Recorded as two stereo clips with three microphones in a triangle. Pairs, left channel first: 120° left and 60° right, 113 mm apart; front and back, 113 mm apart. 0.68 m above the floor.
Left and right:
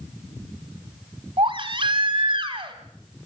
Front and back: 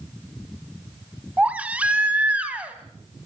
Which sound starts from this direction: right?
A baby crying, at 1.4 s.